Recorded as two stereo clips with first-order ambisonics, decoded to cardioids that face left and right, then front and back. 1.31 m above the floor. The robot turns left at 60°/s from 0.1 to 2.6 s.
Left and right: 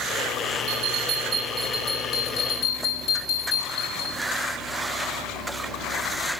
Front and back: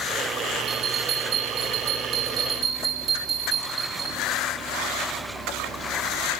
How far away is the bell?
About 5.5 m.